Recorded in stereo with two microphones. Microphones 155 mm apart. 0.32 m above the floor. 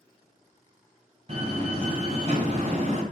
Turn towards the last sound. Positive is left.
turn(degrees=-45)  # may be behind; listen again after turning